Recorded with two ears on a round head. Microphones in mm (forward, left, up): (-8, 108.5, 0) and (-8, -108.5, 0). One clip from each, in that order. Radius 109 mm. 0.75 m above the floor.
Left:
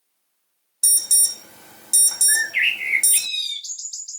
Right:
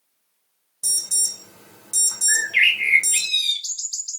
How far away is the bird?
About 1.1 m.